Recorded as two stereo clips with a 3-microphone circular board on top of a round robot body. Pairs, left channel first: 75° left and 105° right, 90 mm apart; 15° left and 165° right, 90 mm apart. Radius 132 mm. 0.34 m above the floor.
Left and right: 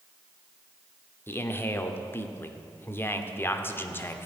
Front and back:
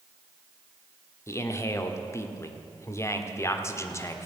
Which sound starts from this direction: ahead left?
A man speaking, at 1.3 s.